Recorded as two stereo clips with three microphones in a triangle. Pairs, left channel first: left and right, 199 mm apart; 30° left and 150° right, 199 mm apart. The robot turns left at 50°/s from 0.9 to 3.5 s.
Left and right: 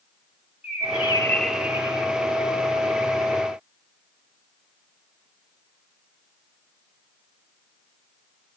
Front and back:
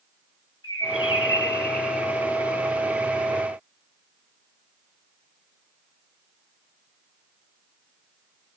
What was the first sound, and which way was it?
A bird, 30° left.